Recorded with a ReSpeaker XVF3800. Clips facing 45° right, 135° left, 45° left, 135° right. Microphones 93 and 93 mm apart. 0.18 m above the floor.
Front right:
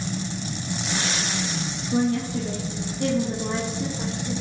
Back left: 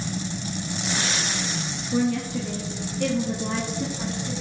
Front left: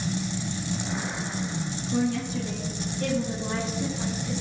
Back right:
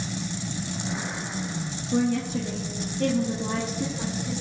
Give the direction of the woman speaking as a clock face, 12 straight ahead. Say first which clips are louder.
Front right 1 dB, back right 2 dB; 3 o'clock.